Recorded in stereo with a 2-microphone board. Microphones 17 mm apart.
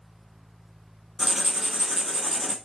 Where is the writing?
15° right (ahead or behind), 0.5 m.